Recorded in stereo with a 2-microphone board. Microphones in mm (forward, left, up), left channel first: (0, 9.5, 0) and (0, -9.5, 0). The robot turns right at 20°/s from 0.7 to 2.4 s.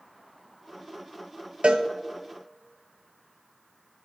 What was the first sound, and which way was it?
A cowbell, 60° right (ahead or behind).